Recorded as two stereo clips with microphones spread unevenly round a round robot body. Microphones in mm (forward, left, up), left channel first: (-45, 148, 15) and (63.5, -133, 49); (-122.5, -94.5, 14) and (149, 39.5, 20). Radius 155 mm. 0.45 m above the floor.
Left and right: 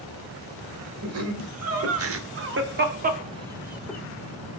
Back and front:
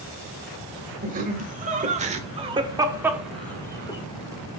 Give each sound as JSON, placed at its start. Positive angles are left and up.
{"t": 1.0, "sound": "laughter", "azimuth_deg": -35, "distance_m": 2.5}